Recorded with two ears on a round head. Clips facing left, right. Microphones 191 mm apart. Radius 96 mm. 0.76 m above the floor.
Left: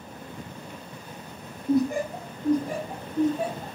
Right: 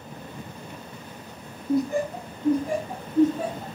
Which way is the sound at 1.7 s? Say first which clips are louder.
Left 1 dB; 25° left (ahead or behind).